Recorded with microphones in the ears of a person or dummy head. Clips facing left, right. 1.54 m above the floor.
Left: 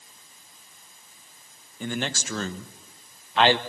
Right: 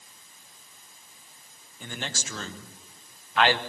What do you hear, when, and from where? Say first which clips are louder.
1.8 s a man speaking: left 7 dB; 55° left (ahead or behind), 1.5 m; by 3.6 s 15° left (ahead or behind), 1.0 m